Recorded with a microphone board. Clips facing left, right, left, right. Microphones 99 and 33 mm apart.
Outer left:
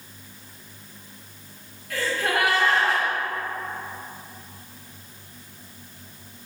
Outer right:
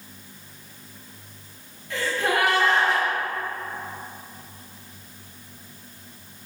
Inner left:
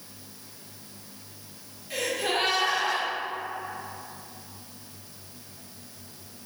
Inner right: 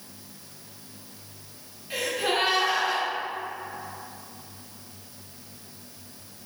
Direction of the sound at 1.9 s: 25° right (ahead or behind).